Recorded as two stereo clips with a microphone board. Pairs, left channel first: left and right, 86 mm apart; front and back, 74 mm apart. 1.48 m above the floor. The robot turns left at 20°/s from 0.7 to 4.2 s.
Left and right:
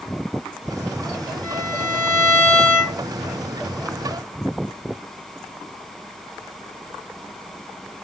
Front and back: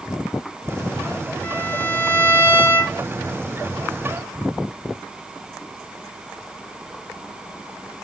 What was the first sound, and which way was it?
A violin, 60° left.